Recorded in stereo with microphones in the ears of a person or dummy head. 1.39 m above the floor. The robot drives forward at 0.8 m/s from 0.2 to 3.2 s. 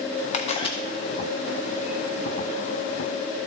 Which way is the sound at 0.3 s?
40° left (ahead or behind).